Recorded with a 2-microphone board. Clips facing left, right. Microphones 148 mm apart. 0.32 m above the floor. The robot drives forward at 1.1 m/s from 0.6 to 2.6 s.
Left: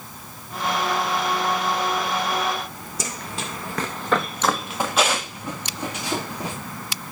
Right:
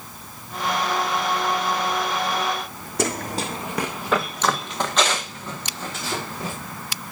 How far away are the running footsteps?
About 0.9 m.